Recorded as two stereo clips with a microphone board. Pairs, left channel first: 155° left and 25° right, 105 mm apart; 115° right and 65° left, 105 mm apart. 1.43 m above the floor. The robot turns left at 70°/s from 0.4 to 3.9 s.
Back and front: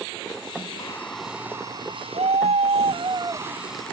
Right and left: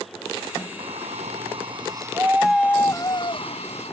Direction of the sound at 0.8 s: 100° left.